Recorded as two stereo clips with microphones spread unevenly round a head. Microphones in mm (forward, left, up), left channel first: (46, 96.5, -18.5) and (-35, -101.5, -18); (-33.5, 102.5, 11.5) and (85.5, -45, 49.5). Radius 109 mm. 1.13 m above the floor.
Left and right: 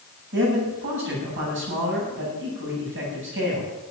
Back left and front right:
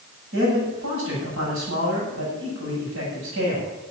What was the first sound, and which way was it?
A man speaking, 80° right.